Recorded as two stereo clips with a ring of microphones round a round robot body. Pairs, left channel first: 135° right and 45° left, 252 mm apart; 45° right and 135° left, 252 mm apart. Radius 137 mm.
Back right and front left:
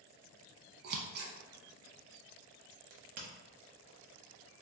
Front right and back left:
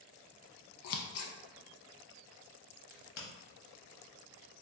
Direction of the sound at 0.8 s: 10° right.